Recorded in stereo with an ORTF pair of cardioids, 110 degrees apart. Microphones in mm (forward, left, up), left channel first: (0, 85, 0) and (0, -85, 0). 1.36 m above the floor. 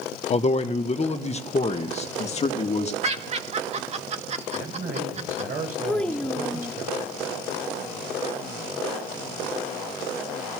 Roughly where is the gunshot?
No gunshot in this recording.